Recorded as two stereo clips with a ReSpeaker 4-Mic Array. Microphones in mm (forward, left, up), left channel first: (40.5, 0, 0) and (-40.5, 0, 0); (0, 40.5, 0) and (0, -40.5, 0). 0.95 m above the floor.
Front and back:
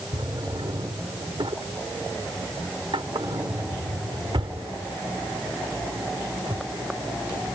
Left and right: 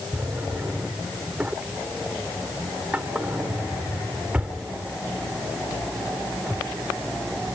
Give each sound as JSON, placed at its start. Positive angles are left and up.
{"t": 0.1, "sound": "a drawer", "azimuth_deg": -165}